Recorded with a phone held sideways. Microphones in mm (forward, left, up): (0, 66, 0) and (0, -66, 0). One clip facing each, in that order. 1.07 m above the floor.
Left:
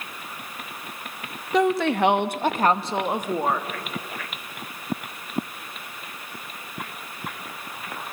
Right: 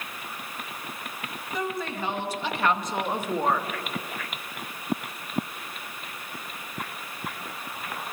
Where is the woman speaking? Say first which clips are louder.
Left 11 dB; 85° left, 1.3 m; by 3.7 s 5° left (ahead or behind), 1.6 m.